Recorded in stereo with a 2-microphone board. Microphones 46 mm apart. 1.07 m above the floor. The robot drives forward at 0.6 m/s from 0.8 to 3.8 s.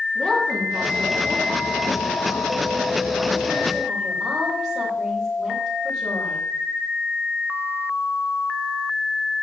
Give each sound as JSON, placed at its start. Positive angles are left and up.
{"t": 0.1, "sound": "a woman speaking", "side_deg": 15, "distance_m": 2.0}